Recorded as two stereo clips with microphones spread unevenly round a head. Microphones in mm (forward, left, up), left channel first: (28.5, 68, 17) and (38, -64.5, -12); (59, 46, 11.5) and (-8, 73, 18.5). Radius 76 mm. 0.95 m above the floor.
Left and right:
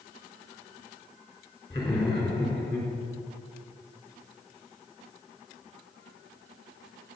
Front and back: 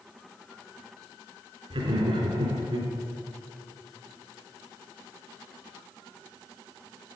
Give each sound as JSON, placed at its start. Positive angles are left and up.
{"t": 1.7, "sound": "laughter", "azimuth_deg": 170, "distance_m": 3.5}